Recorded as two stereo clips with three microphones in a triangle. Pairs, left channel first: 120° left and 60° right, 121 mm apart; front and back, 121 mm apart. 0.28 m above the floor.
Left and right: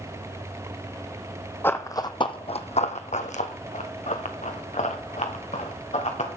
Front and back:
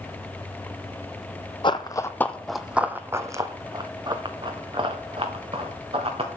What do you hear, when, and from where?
1.6 s running footsteps: 50° left, 0.8 m; by 6.4 s 145° left, 3 m